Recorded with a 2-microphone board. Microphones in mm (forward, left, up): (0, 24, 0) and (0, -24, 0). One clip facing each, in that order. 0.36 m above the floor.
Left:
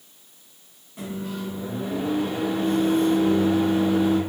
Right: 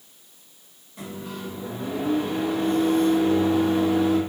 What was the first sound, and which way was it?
A microwave, 15° left (ahead or behind).